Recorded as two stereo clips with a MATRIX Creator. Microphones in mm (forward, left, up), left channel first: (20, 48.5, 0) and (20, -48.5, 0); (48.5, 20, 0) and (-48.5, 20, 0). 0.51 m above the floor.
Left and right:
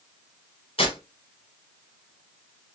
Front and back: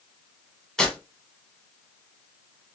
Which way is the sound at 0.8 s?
85° left.